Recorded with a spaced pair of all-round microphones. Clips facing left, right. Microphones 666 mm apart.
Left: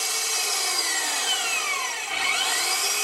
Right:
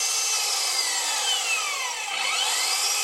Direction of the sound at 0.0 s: 85° left.